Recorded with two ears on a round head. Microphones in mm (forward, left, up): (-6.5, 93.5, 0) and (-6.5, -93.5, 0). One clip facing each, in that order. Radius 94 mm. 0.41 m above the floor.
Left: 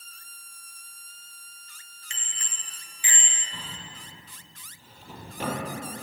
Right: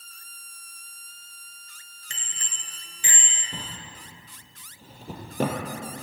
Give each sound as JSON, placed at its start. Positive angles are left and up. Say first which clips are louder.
{"t": 2.1, "sound": "a bicycle bell", "louder": "right 1 dB", "side_deg": -35, "distance_m": 4.0}
{"t": 3.5, "sound": "a drawer", "louder": "right 5 dB", "side_deg": -40, "distance_m": 4.5}